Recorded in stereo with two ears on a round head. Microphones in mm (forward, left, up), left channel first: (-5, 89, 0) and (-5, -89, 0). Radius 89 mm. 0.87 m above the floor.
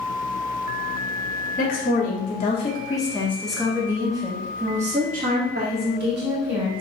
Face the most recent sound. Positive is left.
turn(degrees=-65)  # may be behind; listen again after turning